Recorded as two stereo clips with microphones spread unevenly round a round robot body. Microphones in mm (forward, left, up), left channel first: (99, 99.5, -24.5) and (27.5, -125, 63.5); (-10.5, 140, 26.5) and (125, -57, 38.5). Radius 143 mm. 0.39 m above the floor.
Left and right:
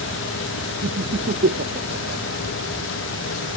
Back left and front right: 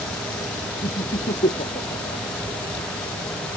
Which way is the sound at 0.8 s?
165° right.